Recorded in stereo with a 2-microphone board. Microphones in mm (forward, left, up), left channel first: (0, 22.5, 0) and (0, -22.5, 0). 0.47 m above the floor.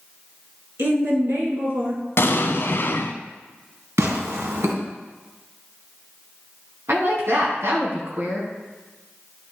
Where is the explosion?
65° left (ahead or behind), 0.9 m.